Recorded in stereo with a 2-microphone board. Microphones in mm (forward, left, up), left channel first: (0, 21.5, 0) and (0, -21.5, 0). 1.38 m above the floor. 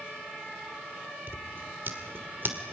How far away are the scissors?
About 2 m.